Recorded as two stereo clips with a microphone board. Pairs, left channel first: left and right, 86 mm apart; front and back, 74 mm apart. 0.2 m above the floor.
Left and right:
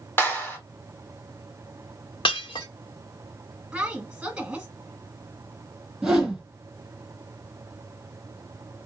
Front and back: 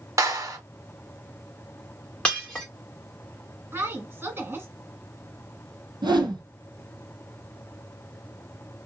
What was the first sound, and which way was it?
A clap, 145° left.